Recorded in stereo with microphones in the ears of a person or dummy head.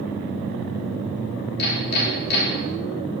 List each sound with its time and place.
1.6 s hammering: 55° left (ahead or behind), 3.5 m